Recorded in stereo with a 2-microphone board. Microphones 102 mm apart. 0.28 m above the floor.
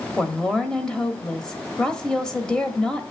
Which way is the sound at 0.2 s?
5° left (ahead or behind).